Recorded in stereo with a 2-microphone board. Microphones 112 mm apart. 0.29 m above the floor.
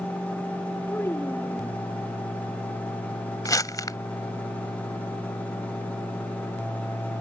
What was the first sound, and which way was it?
A child speaking, 20° left (ahead or behind).